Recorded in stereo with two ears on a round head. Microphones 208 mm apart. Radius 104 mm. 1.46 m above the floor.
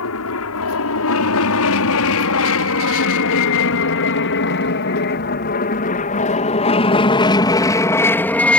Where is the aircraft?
70° left (ahead or behind); by 8.6 s 5° left (ahead or behind).